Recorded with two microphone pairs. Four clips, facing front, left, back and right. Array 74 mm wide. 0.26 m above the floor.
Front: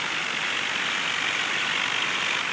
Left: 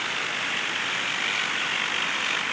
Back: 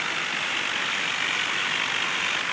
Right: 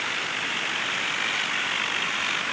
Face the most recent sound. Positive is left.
No sound to turn to.